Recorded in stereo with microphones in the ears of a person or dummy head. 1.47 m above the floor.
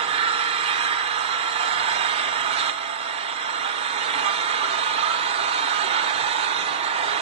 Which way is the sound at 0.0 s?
30° right (ahead or behind).